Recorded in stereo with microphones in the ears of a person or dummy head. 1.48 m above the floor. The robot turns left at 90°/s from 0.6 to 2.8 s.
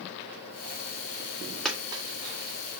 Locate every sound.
1.6 s a dropped coin: 5° left (ahead or behind), 1.5 m; by 2.0 s 30° right (ahead or behind), 1.5 m